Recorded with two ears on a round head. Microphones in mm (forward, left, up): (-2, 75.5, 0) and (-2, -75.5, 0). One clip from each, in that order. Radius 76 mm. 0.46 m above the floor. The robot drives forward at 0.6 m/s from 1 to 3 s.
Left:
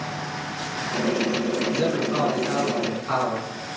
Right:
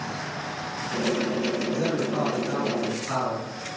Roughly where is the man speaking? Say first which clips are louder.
Left 3 dB; left.